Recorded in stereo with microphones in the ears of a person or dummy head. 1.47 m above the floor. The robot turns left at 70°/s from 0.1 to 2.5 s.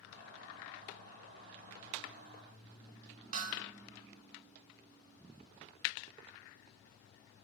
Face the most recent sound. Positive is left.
turn(degrees=-50)  # may be behind; listen again after turning